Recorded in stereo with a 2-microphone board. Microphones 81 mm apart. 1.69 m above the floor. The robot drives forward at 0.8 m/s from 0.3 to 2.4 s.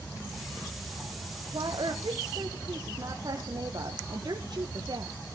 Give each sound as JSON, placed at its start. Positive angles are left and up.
{"t": 1.5, "sound": "a woman speaking", "side_deg": -65, "distance_m": 1.1}